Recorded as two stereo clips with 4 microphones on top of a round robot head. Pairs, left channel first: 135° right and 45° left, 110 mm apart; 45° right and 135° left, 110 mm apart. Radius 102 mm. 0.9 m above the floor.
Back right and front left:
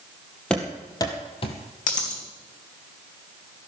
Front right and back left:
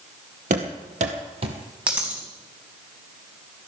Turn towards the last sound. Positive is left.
turn(degrees=-145)